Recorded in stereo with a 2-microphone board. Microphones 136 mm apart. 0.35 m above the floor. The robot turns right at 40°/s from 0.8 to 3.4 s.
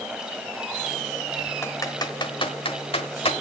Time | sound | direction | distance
1.6 | typing on a keyboard | 20° left (ahead or behind) | 1.2 m